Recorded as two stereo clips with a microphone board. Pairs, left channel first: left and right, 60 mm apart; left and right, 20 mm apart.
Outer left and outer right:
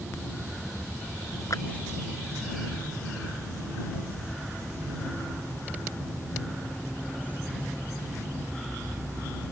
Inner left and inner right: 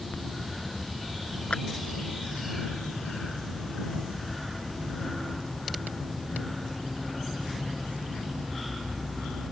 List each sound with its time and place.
1.5 s a clap: 65° left (ahead or behind)